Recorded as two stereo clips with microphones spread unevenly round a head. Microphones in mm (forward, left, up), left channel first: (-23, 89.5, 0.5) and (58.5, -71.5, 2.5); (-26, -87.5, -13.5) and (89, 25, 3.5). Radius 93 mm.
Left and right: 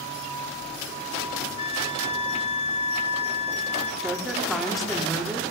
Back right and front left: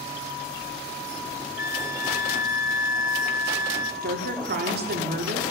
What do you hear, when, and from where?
1.6 s a flute: 175° left, 0.8 m
4.0 s a woman speaking: 25° left, 5.5 m